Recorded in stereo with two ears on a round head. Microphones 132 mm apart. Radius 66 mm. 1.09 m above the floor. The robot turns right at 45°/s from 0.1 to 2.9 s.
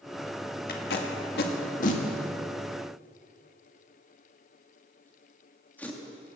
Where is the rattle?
No rattle in this recording.